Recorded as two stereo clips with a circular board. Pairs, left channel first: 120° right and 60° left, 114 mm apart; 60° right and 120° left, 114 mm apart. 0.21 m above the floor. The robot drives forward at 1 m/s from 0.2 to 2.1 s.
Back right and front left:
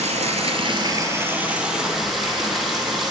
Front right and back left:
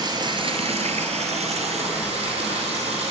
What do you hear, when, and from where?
0.0 s running water: 70° left, 1.0 m; by 3.1 s 150° left, 1.8 m